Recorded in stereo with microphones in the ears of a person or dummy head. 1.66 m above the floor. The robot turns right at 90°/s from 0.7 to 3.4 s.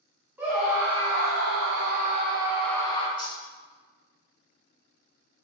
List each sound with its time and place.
0.4 s a scream: 170° right, 0.9 m; by 3.1 s 40° left, 0.9 m
3.2 s cutlery clinking: 5° right (ahead or behind), 2.0 m; by 3.4 s 20° right (ahead or behind), 2.0 m